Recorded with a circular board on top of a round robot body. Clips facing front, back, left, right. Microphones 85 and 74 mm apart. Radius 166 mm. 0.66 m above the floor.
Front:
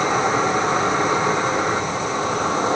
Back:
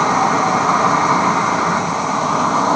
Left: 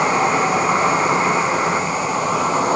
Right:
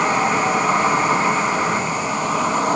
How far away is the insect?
About 4 m.